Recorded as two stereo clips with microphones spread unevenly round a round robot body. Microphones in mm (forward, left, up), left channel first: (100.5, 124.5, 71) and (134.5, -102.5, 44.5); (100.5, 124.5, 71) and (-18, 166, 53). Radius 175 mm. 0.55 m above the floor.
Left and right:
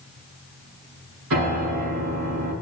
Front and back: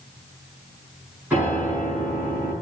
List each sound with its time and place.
1.3 s a piano: 115° right, 7 m